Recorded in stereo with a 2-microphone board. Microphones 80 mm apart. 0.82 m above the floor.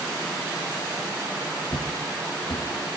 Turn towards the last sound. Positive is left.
turn(degrees=55)  # may be behind; listen again after turning